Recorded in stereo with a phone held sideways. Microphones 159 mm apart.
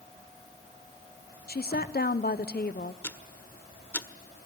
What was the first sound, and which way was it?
A woman speaking, 75° left (ahead or behind).